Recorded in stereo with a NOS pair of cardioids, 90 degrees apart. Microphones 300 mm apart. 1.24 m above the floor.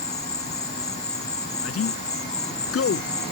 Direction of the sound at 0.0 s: 20° left.